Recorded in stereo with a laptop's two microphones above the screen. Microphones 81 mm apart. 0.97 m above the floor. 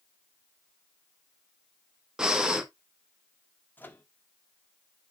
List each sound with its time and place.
2.2 s breathing: 10° right (ahead or behind), 1.2 m
3.8 s a microwave: 25° left (ahead or behind), 0.6 m